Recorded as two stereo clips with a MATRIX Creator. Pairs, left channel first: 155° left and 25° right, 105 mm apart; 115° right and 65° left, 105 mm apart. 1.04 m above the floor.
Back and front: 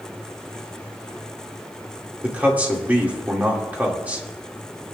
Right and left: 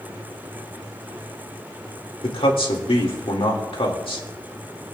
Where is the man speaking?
95° right, 2.5 m.